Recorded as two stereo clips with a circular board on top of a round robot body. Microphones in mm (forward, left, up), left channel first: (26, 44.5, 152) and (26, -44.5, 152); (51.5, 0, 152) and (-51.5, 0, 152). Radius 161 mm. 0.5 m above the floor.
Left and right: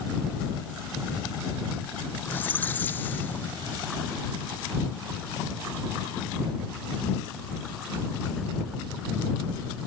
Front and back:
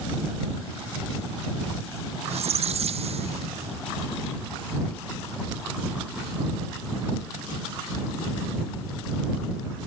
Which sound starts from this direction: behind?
A squeak, at 2.2 s.